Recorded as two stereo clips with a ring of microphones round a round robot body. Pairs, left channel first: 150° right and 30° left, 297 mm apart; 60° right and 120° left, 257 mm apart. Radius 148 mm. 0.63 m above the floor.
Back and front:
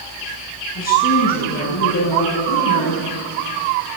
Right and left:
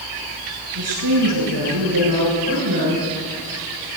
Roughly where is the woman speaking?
Behind.